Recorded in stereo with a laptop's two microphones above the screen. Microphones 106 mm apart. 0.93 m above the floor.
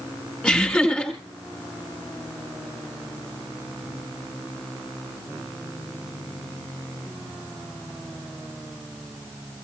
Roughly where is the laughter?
Centre.